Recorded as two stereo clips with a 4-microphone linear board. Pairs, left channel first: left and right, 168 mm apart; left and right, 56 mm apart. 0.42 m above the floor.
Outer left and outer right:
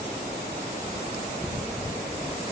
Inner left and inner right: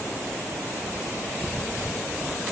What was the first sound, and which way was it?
Only background noise.